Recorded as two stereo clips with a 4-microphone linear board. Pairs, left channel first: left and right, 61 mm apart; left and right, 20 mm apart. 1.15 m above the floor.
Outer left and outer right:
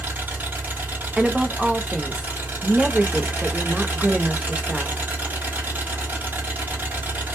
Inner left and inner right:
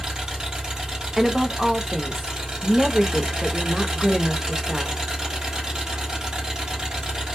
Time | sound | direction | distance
0.0 | an engine running | 35° right (ahead or behind) | 1.4 m
1.2 | a woman speaking | 10° right (ahead or behind) | 0.6 m